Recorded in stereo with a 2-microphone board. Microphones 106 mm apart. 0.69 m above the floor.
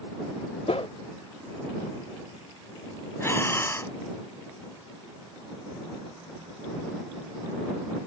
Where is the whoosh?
70° left (ahead or behind).